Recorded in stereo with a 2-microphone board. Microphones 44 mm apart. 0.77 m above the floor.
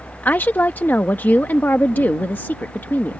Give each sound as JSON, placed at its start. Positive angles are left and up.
{"t": 0.2, "sound": "a woman speaking", "side_deg": 45}